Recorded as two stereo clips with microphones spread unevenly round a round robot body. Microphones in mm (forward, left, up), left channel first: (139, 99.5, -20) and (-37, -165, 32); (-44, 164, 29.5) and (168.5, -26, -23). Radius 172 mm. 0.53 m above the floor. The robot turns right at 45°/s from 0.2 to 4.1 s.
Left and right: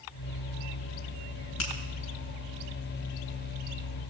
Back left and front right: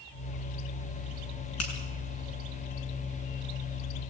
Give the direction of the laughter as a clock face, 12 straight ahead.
No laughter in this recording.